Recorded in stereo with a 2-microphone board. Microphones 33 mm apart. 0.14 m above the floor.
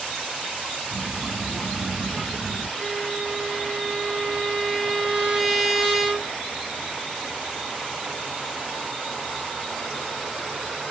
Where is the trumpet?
20° right (ahead or behind), 1.8 m.